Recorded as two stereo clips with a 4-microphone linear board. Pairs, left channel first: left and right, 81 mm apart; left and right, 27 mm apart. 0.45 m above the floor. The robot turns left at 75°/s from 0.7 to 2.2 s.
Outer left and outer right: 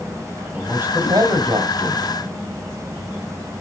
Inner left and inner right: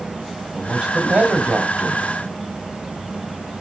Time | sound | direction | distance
0.5 | a man speaking | 20° right | 1.9 m